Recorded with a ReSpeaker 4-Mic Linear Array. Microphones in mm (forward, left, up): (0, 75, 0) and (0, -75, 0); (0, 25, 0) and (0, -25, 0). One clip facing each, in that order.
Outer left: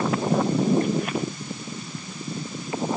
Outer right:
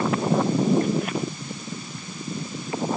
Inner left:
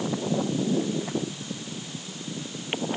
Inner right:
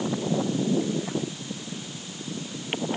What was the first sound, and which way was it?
Only background noise.